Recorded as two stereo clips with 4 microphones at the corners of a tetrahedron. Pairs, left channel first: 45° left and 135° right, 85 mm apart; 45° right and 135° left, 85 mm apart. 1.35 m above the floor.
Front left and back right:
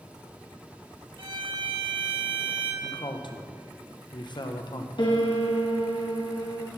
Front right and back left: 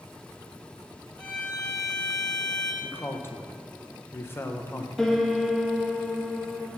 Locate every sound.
1.2 s a violin: 120° right, 2 m
2.8 s a man speaking: 15° left, 0.9 m
5.0 s a piano: 40° left, 1.1 m